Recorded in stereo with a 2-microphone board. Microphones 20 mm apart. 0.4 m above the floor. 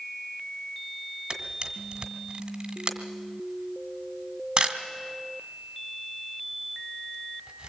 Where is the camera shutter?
50° right (ahead or behind), 1.8 m.